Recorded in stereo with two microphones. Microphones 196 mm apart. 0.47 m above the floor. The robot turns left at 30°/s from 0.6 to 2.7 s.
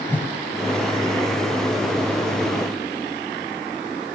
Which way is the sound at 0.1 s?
10° left (ahead or behind).